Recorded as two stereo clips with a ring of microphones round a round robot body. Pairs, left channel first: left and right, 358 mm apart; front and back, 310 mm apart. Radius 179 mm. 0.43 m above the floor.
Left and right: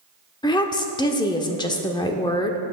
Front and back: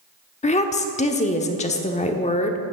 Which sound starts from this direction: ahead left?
A woman speaking, at 0.4 s.